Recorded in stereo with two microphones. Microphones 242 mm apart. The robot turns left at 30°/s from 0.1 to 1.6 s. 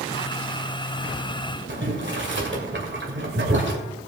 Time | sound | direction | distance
1.7 | boiling | 50° right (ahead or behind) | 2 m